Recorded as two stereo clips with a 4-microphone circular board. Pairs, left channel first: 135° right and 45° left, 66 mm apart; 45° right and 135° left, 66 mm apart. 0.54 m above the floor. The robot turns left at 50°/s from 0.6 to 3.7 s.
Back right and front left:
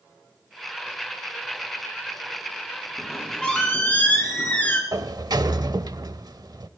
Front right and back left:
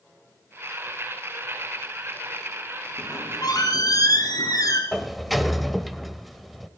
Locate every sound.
3.0 s a squeak: 30° right, 3.5 m; by 4.8 s 70° right, 3.5 m
4.9 s a sliding door: 45° left, 0.6 m